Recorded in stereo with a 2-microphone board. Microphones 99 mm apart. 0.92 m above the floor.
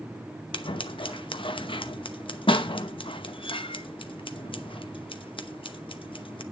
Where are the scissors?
60° left (ahead or behind), 0.8 m.